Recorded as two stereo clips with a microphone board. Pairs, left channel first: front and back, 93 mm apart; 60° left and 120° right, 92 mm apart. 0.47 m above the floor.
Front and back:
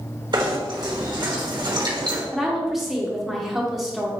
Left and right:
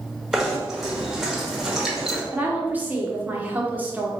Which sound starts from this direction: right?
A woman speaking, at 2.3 s.